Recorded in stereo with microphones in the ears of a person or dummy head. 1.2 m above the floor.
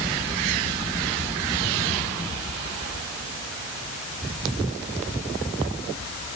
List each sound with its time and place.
Only background noise.